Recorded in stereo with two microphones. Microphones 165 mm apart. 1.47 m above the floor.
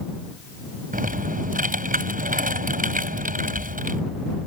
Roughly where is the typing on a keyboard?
Right.